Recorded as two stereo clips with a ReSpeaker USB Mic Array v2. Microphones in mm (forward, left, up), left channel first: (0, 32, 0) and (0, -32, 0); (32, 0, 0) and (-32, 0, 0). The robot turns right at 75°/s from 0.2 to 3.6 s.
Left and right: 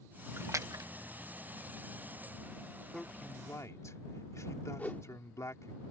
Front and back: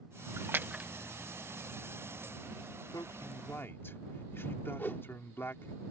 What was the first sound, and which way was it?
A splash, 140° right.